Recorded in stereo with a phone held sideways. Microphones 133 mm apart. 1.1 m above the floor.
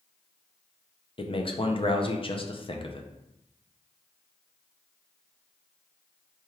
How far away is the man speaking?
About 0.5 m.